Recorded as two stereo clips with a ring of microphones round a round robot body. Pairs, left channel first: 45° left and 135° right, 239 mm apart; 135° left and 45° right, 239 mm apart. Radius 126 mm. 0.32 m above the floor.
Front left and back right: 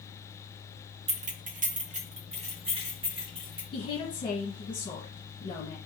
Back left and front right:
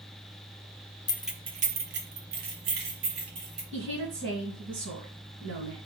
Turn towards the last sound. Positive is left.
turn(degrees=-30)